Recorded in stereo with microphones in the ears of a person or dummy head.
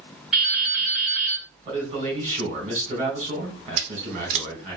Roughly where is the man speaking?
Right.